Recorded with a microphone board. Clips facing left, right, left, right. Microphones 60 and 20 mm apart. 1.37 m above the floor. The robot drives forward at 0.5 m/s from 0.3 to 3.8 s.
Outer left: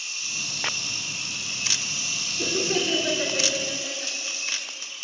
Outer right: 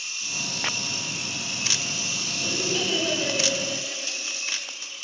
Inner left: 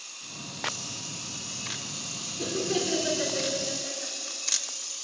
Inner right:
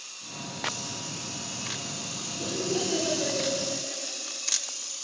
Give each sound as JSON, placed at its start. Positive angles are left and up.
{"t": 2.4, "sound": "laughter", "side_deg": 50, "distance_m": 5.0}